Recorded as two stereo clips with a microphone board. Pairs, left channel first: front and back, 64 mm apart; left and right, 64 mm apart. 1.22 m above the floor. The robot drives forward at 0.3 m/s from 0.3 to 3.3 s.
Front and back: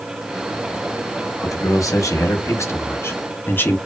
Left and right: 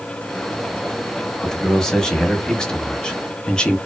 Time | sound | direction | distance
1.4 | a man speaking | 10° left | 1.0 m